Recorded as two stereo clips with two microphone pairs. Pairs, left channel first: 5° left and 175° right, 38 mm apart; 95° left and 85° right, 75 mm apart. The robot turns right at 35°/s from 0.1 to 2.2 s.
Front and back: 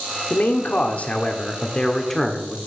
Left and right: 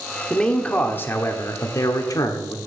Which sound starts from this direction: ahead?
A man speaking, at 0.3 s.